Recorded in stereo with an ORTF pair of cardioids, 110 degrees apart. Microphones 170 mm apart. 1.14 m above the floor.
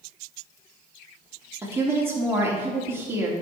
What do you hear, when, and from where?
1.6 s a woman speaking: 15° right, 3 m